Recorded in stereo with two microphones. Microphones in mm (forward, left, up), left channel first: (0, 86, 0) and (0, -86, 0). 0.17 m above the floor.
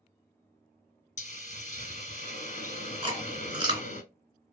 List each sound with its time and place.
1.2 s a hiss: 45° left (ahead or behind), 1.0 m
3.0 s chewing: 30° right (ahead or behind), 2.5 m